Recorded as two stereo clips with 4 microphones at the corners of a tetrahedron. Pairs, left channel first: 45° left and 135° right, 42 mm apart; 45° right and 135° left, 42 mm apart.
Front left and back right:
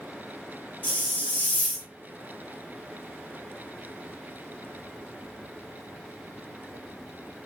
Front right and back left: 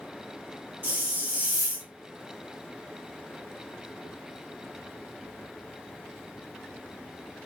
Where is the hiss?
90° left, 1.0 m.